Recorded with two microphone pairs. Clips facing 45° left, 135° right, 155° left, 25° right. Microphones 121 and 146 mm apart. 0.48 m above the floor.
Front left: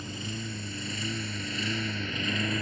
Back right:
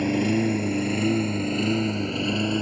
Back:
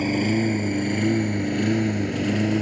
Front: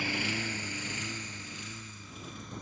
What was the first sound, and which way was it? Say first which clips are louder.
A lawn mower: back right 17 dB, back 14 dB; 155° right.